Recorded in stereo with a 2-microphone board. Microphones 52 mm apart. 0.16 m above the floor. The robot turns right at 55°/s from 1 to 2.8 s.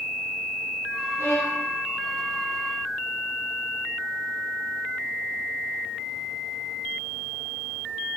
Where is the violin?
60° left (ahead or behind), 2.5 m; by 1.7 s 45° left (ahead or behind), 2.5 m.